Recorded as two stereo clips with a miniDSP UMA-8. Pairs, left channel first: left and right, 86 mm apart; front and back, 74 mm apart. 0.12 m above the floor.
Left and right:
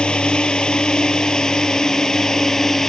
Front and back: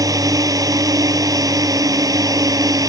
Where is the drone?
170° left; by 2.9 s 175° left.